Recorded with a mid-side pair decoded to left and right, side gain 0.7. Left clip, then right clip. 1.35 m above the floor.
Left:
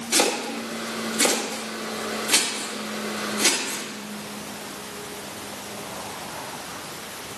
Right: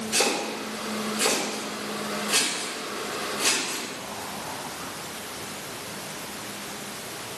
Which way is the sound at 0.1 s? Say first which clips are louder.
Left 3 dB; 65° left.